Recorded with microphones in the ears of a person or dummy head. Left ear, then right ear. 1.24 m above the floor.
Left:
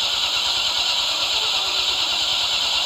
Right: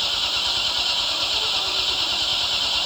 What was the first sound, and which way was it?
An engine running, 30° left (ahead or behind).